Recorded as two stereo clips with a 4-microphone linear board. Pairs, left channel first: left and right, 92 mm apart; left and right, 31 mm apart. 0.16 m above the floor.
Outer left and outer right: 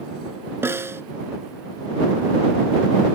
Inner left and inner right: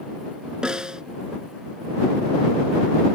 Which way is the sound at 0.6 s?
25° right (ahead or behind).